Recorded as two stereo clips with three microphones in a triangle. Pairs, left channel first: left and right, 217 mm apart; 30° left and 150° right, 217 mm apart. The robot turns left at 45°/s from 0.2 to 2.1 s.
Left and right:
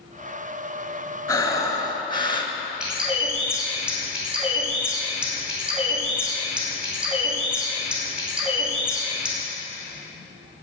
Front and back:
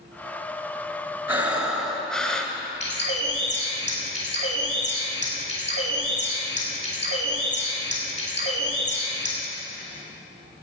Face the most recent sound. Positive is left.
turn(degrees=-5)